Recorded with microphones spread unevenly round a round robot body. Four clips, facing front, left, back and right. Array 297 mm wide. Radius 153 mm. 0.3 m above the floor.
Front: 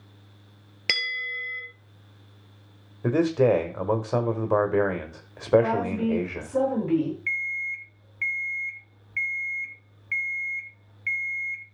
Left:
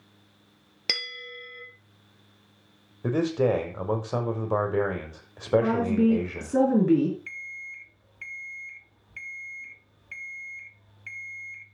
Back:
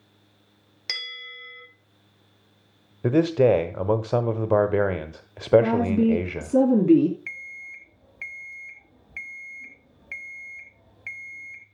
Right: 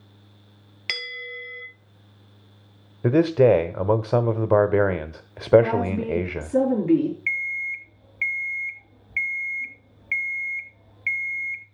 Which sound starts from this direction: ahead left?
A bell, at 0.9 s.